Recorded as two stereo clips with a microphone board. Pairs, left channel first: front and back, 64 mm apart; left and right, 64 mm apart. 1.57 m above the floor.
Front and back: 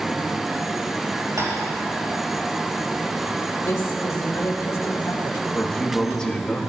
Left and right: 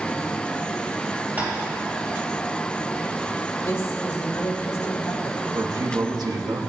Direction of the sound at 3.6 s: 40° left.